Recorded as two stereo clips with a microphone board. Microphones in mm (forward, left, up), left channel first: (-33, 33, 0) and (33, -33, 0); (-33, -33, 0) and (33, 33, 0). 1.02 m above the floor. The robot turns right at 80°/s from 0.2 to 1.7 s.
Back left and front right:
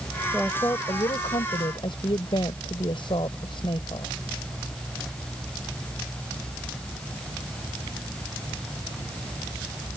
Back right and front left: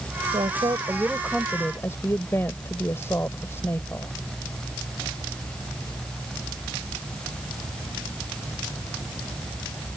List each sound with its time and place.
0.3 s a woman speaking: 50° left; by 4.1 s 160° left